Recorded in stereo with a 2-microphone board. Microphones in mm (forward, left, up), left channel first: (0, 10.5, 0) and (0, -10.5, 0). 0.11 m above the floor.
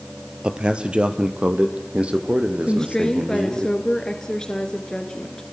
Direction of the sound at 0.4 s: 50° right (ahead or behind).